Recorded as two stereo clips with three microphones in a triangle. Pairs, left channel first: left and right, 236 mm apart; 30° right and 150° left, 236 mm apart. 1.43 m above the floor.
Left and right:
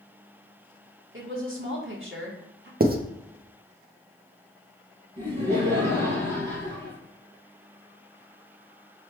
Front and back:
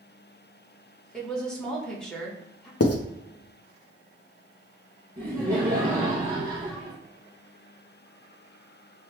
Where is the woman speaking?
115° right, 1.2 m.